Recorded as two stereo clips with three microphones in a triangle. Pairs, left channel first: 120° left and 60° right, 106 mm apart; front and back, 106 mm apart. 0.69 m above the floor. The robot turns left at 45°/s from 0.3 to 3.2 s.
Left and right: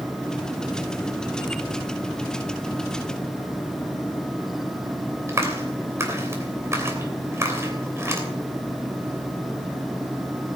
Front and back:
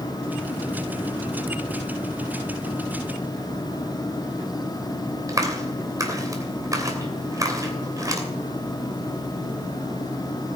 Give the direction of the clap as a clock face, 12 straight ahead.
4 o'clock.